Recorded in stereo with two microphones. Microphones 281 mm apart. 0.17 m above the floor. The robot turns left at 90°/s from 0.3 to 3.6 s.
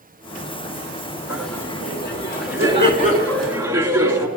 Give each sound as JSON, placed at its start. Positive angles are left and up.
{"t": 1.3, "sound": "laughter", "azimuth_deg": -165, "distance_m": 2.5}